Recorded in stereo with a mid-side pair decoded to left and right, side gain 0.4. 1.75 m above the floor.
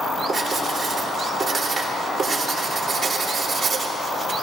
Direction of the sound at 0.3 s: 40° right.